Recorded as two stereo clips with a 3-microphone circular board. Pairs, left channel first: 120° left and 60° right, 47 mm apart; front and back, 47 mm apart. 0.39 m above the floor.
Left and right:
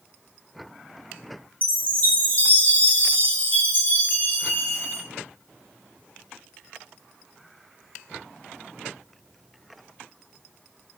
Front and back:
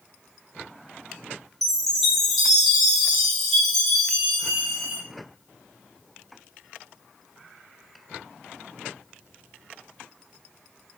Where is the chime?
85° left, 0.8 m.